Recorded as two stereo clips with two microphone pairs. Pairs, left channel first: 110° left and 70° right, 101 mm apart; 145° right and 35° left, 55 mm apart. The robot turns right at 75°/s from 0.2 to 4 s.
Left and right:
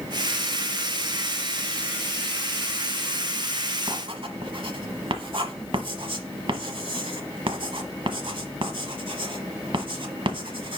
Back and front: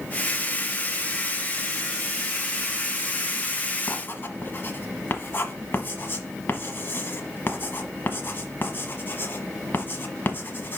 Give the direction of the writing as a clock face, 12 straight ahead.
4 o'clock.